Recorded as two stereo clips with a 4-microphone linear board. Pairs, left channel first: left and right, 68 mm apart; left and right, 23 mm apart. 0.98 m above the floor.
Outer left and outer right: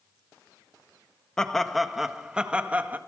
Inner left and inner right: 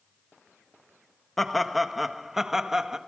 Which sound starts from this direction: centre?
Laughter, at 1.4 s.